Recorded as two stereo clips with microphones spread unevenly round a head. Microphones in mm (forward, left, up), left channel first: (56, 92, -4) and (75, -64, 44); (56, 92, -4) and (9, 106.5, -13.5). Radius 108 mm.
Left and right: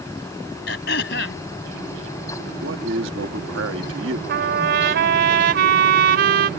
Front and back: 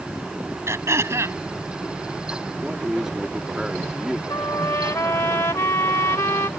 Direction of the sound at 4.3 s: 80° right.